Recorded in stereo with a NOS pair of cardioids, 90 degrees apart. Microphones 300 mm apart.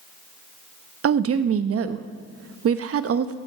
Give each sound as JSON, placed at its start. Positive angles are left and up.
{"t": 1.0, "sound": "a woman speaking", "azimuth_deg": -50, "distance_m": 1.1}